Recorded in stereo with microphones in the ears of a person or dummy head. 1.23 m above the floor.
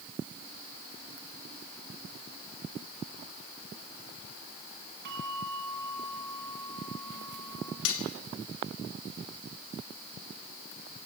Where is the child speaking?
I don't hear a child speaking.